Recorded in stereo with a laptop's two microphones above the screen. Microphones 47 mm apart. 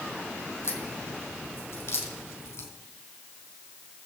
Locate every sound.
0.6 s a crack: 65° left (ahead or behind), 4 m